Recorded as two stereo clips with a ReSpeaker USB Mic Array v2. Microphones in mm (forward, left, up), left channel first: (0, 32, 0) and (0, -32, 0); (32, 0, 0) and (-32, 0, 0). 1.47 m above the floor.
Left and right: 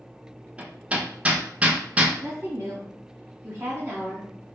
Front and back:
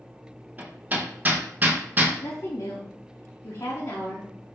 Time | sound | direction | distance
0.6 | hammering | 145° right | 0.7 m
2.2 | a woman speaking | 25° right | 0.9 m